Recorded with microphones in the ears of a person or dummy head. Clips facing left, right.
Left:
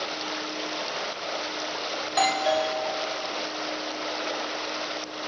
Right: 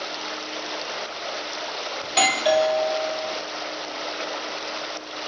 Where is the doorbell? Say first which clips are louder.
Right 3 dB; 40° right (ahead or behind), 1.1 m.